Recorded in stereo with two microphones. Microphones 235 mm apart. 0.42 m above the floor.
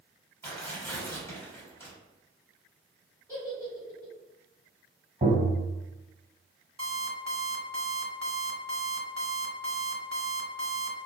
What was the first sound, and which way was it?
Tearing paper, 10° left (ahead or behind).